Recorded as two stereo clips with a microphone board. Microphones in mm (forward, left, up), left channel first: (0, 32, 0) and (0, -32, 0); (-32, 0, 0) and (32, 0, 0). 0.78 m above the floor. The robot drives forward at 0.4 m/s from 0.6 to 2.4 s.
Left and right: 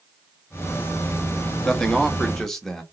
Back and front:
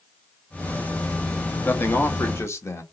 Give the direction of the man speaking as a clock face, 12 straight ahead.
6 o'clock.